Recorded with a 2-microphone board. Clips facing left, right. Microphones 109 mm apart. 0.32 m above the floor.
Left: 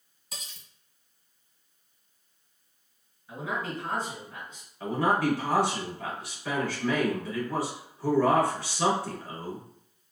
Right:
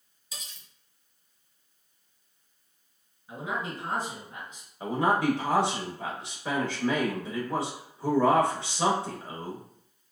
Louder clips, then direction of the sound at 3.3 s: Even; 15° right (ahead or behind).